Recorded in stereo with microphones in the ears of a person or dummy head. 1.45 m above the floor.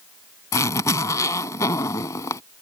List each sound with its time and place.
0.5 s a zipper: 15° left (ahead or behind)